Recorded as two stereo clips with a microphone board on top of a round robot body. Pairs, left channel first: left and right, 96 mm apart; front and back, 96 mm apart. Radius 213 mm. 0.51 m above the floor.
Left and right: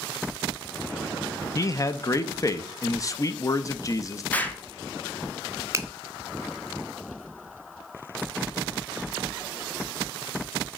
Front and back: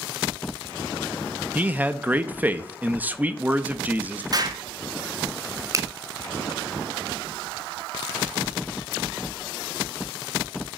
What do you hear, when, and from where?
1.6 s a man speaking: 115° left, 0.7 m
4.3 s an explosion: 155° left, 1.0 m
5.7 s a finger snap: 140° right, 0.9 m